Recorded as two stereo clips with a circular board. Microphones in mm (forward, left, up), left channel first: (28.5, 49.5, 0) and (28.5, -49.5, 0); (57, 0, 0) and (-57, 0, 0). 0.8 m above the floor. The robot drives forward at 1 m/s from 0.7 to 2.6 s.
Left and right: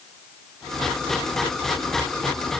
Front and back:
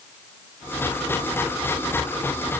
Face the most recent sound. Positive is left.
No sound to turn to.